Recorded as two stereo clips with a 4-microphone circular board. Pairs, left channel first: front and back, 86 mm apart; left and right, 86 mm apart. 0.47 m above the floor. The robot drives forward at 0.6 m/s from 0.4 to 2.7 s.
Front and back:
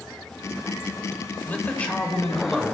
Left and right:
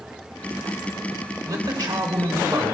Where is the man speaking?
65° right, 1.8 m; by 2.7 s 90° right, 1.6 m.